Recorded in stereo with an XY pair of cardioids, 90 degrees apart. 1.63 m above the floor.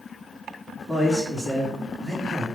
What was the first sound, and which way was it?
A man speaking, 10° right.